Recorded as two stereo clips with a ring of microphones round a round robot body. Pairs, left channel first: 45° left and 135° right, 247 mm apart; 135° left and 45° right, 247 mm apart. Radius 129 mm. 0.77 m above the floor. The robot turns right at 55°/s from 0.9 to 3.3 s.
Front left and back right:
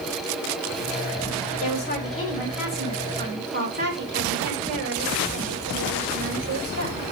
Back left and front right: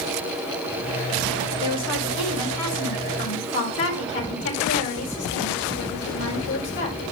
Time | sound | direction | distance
1.6 | a woman speaking | 85° left | 5 m